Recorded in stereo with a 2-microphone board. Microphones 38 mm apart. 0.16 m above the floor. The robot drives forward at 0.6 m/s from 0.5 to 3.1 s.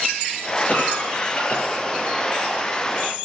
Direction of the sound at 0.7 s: 45° left (ahead or behind).